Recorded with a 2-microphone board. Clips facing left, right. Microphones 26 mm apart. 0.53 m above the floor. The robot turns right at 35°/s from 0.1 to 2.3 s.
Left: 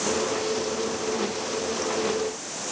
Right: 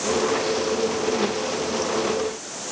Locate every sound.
Only background noise.